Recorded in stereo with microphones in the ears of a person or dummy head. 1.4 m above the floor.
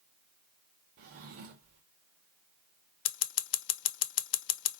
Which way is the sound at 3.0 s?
70° left (ahead or behind).